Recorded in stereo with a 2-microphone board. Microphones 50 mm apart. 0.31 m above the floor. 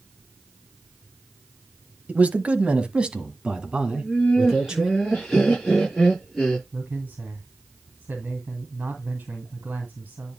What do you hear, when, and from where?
2.1 s a man speaking: 30° right (ahead or behind), 1.3 m; by 4.9 s 15° right (ahead or behind), 4 m
3.9 s laughter: 5° left (ahead or behind), 5.5 m
6.7 s a man speaking: 35° right (ahead or behind), 2.5 m